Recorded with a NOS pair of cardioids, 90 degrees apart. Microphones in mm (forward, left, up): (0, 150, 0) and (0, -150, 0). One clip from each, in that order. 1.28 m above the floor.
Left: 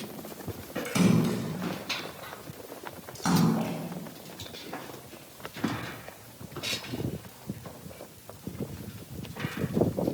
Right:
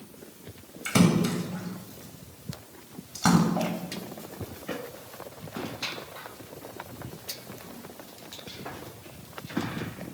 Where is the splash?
50° right, 7.5 m.